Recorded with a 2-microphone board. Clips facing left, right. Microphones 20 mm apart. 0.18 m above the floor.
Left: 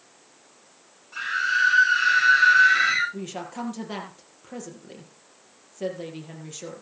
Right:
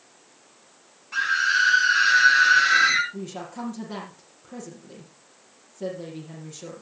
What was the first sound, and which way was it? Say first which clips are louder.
A scream: right 3 dB; 35° right (ahead or behind).